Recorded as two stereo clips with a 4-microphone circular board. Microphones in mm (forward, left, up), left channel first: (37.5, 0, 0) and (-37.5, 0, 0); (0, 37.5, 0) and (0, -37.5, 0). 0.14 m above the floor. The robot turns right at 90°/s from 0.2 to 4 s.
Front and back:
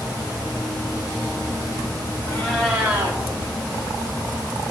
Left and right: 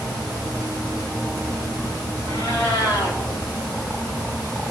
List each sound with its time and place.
2.3 s a cat meowing: 55° left, 3.5 m; by 3.2 s 140° left, 3.5 m